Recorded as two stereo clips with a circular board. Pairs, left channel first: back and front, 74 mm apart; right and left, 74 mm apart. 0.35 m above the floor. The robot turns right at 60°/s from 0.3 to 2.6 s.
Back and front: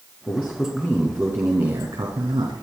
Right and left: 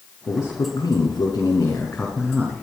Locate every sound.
0.3 s a man speaking: 115° right, 3 m; by 2.6 s 25° left, 3 m